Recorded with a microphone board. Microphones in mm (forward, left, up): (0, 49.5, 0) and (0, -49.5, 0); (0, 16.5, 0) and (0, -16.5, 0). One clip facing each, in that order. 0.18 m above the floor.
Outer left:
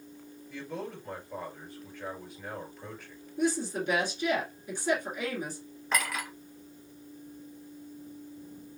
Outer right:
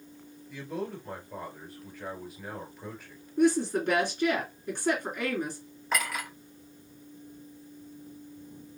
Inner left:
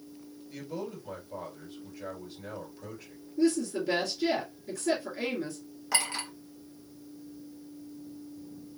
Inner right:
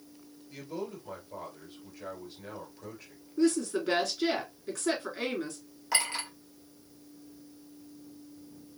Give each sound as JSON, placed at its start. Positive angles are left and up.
{"t": 0.5, "sound": "a man speaking", "side_deg": -5, "distance_m": 2.5}
{"t": 3.4, "sound": "a woman speaking", "side_deg": -55, "distance_m": 2.5}
{"t": 5.9, "sound": "a clink", "side_deg": -5, "distance_m": 1.9}